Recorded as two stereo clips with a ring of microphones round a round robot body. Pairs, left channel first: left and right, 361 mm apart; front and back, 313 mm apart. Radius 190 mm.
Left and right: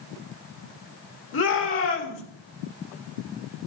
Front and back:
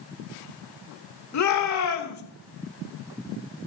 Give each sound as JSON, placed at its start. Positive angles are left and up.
{"t": 1.3, "sound": "a shout", "azimuth_deg": 35, "distance_m": 3.0}